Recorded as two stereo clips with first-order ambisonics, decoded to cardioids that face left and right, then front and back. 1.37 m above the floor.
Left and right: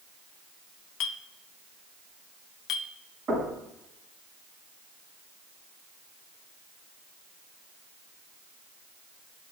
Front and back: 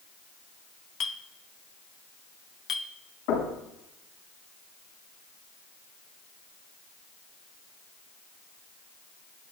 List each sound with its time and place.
1.0 s a clink: 60° left, 0.8 m
3.3 s knocking: 25° right, 6.5 m